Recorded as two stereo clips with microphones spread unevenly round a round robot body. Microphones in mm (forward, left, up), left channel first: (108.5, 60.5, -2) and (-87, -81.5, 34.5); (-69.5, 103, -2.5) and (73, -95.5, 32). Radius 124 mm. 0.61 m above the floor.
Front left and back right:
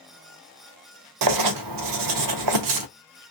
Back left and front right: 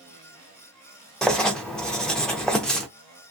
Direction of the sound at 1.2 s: 150° right.